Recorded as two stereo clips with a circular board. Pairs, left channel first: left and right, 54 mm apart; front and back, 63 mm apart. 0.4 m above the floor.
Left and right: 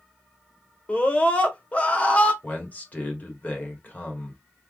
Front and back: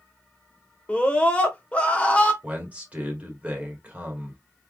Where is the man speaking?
125° left, 1.5 m.